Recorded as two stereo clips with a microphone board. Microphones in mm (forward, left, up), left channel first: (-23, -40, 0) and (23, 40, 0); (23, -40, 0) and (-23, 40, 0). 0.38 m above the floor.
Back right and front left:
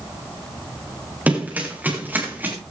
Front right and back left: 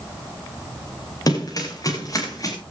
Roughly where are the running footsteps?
Ahead.